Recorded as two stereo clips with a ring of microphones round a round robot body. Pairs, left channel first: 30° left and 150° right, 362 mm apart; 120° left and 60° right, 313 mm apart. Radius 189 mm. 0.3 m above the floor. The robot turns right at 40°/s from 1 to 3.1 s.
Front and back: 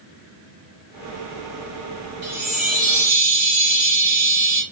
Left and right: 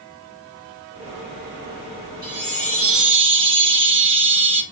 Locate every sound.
2.2 s a chime: 115° right, 2 m; by 4.6 s 80° right, 2 m